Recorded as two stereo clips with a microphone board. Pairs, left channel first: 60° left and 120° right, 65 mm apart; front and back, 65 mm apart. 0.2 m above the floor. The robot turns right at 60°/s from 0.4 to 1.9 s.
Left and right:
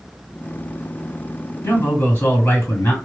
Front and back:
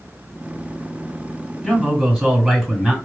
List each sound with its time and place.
1.6 s a man speaking: 90° left, 2.5 m; by 3.0 s 110° left, 2.5 m